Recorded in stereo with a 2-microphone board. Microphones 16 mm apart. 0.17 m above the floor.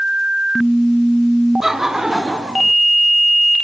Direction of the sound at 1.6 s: 30° right (ahead or behind).